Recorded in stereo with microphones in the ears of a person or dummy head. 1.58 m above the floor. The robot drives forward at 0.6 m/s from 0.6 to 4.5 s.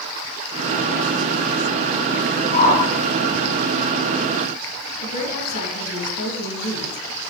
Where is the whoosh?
45° left (ahead or behind), 4 m.